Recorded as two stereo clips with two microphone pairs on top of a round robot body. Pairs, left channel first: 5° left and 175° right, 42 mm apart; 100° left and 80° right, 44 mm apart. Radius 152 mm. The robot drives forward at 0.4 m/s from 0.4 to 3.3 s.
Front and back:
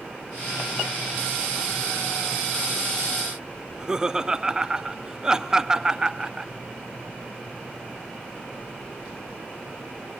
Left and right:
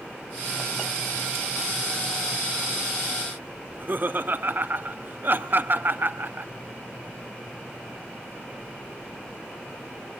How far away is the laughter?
About 1.2 m.